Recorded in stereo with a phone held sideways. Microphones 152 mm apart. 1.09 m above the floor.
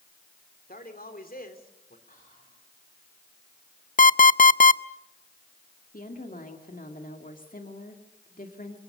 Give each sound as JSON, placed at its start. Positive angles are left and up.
{"t": 0.7, "sound": "a man speaking", "side_deg": 80, "distance_m": 3.0}
{"t": 2.1, "sound": "whispering", "side_deg": 70, "distance_m": 4.5}
{"t": 4.0, "sound": "an alarm clock", "side_deg": 65, "distance_m": 0.5}
{"t": 5.9, "sound": "a woman speaking", "side_deg": 70, "distance_m": 2.0}